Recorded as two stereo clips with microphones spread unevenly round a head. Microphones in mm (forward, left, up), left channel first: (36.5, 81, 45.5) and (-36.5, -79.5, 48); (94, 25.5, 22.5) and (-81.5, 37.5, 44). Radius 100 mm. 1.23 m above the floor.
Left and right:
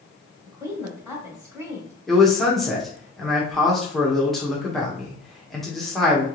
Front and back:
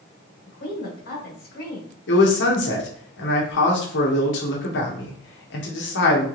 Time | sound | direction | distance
0.5 | a woman speaking | 40° right | 2 m
2.1 | a man speaking | 25° right | 1.3 m